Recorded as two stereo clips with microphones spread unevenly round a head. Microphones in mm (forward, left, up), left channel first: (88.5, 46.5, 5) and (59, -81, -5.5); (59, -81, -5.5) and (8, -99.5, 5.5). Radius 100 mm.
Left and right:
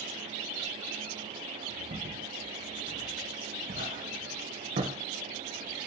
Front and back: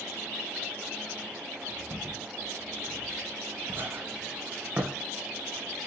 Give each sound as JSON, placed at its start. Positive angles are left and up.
{"t": 1.9, "sound": "footsteps", "azimuth_deg": -130, "distance_m": 4.0}